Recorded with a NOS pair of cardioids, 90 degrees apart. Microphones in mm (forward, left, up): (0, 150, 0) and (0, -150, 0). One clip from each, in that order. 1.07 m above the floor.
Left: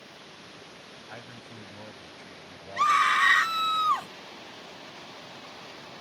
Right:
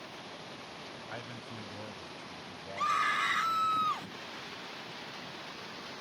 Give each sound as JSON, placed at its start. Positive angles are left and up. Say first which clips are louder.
{"t": 1.1, "sound": "a man speaking", "louder": "even", "azimuth_deg": -5}
{"t": 2.8, "sound": "a scream", "louder": "left 8 dB", "azimuth_deg": 60}